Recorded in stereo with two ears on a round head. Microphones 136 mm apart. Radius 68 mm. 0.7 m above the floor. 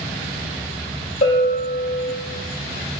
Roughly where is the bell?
Left.